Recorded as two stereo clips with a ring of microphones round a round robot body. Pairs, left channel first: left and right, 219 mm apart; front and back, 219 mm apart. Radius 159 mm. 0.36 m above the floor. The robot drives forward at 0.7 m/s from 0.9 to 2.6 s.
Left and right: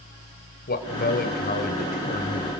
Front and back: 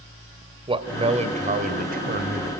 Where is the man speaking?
120° left, 2 m; by 2.5 s 145° left, 2.5 m.